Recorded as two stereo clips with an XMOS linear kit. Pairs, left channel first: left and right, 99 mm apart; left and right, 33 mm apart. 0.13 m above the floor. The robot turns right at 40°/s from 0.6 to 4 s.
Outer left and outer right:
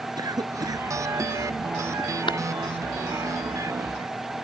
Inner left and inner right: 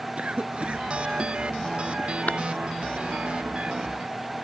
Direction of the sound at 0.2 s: 40° right (ahead or behind).